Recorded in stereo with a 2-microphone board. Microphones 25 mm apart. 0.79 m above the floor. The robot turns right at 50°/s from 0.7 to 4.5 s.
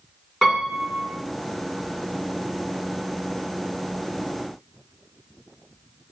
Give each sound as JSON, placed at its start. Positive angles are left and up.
{"t": 0.4, "sound": "a piano", "side_deg": 25, "distance_m": 1.8}